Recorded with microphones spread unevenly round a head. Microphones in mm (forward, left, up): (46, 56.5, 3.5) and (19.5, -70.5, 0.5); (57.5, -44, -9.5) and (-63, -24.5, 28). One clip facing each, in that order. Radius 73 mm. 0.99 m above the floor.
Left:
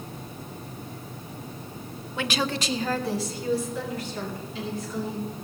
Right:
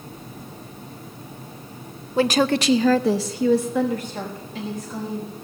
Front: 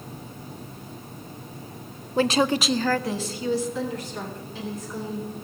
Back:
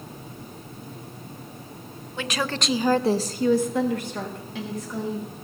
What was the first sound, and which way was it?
A woman speaking, 45° right.